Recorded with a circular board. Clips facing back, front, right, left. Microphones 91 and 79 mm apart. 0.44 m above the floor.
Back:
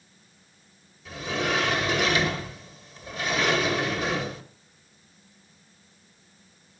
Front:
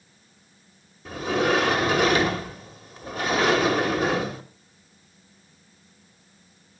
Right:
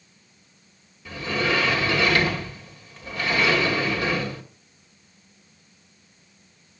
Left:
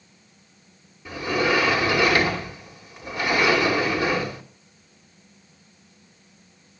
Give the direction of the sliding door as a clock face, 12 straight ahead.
11 o'clock.